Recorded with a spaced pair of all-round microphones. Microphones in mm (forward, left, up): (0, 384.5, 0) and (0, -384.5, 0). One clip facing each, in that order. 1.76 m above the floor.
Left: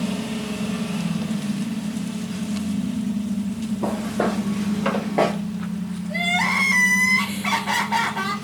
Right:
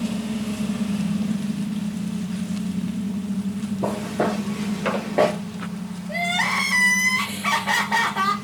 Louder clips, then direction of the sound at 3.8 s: Left 1 dB; 45° right (ahead or behind).